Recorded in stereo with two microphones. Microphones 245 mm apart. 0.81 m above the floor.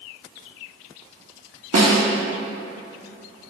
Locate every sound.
1.7 s a snare drum: 70° right (ahead or behind), 1.0 m